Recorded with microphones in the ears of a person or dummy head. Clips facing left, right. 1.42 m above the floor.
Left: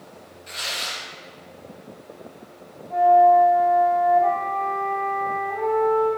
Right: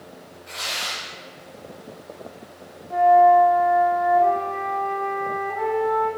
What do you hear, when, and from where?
0.5 s tearing paper: 25° left (ahead or behind), 0.6 m
2.9 s a flute: 45° right (ahead or behind), 1.1 m